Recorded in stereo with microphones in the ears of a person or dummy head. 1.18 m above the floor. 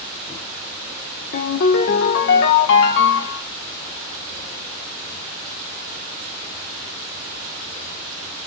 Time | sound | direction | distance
1.3 | a ringtone | 60° left (ahead or behind) | 1.1 m